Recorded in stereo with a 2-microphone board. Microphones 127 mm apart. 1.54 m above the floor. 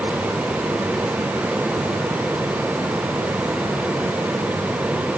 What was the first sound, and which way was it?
Only background noise.